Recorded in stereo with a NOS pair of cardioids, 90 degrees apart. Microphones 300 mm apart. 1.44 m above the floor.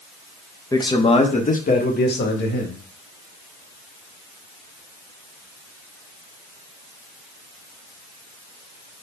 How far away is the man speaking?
About 1.5 m.